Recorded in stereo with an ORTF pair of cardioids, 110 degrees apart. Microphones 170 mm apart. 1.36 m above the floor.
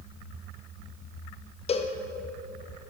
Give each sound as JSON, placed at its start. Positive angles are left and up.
{"t": 1.7, "sound": "a cowbell", "azimuth_deg": 35, "distance_m": 0.8}